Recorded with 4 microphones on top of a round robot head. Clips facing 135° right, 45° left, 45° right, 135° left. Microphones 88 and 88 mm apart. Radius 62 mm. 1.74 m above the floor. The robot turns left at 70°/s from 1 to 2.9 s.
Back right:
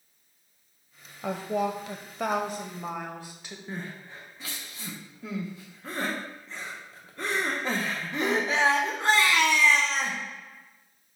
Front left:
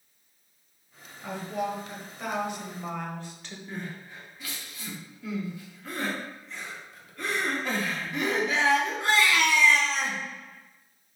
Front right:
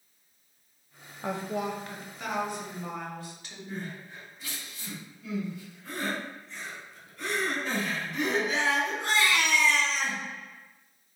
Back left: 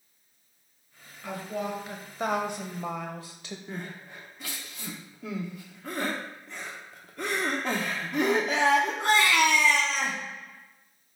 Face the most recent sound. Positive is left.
turn(degrees=170)